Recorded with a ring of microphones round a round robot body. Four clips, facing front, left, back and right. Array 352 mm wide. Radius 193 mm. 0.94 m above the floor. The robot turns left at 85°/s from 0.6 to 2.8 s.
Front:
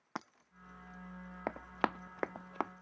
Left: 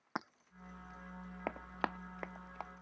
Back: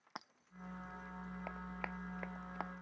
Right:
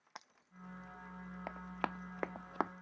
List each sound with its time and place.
0.1 s breaking glass: 60° left
1.5 s running footsteps: 35° left; by 2.7 s 60° right